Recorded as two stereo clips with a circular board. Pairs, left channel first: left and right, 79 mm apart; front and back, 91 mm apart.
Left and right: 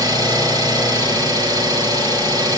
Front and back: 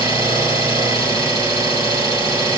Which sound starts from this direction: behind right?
An engine running, at 0.0 s.